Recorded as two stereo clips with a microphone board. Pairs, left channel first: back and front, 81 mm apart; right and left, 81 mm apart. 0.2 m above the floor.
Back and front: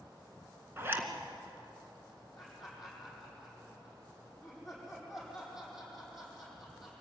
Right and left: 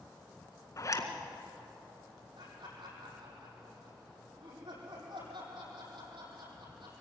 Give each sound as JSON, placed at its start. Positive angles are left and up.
{"t": 0.8, "sound": "a zipper", "azimuth_deg": -55, "distance_m": 2.0}
{"t": 2.4, "sound": "laughter", "azimuth_deg": 90, "distance_m": 9.5}